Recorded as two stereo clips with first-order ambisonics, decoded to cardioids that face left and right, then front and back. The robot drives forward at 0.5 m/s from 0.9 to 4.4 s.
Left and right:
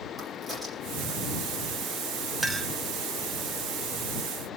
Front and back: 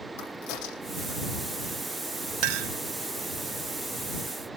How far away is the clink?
About 1.4 m.